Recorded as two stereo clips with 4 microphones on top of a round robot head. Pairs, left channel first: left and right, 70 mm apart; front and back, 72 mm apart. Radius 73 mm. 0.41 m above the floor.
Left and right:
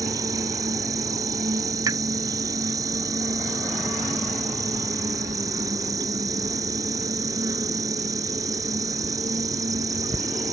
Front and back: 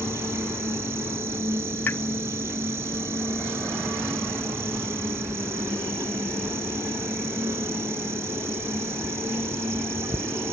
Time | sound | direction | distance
0.0 | an insect | 120° right | ?
1.9 | a pop | 60° right | ?